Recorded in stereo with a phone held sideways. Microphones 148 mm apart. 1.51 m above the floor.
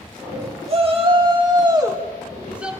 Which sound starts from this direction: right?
A shout, at 0.7 s.